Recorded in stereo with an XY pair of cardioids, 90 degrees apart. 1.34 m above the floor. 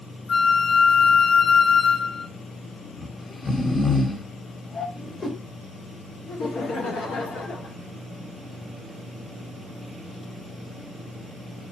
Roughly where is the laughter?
Left.